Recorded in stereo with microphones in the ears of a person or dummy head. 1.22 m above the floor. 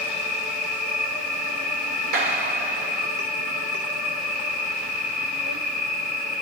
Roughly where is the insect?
Right.